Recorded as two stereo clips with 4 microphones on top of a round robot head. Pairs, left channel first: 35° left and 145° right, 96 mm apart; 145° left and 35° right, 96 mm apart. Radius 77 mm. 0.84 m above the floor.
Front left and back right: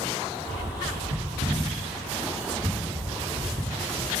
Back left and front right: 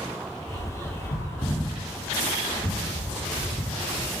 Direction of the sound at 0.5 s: 150° right.